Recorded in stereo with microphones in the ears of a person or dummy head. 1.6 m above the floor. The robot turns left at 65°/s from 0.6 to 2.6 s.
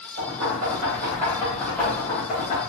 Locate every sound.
0.2 s knocking: 65° right (ahead or behind), 1.7 m; by 2.6 s 55° left (ahead or behind), 1.7 m